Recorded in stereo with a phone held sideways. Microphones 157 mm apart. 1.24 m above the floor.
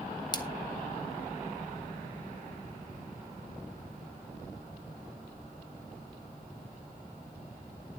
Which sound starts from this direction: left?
A splash, at 0.3 s.